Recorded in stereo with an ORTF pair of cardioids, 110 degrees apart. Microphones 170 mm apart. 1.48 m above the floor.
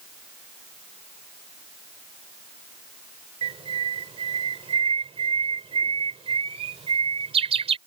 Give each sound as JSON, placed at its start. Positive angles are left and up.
{"t": 3.4, "sound": "a bird", "azimuth_deg": -35}